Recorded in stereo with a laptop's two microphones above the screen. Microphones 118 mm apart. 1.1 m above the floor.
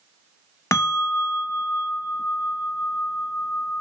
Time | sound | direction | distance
0.7 | a bell | 25° left (ahead or behind) | 0.5 m